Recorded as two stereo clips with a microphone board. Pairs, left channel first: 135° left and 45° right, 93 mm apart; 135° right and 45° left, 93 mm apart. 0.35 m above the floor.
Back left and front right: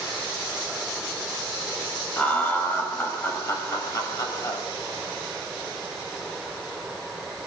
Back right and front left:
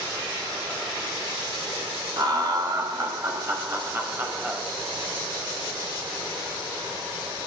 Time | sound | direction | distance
2.2 | laughter | 65° left | 2.5 m